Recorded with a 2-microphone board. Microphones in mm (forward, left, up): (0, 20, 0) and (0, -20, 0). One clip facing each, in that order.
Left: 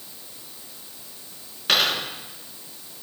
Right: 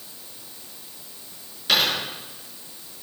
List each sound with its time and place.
1.7 s a dropped coin: 35° left (ahead or behind), 4 m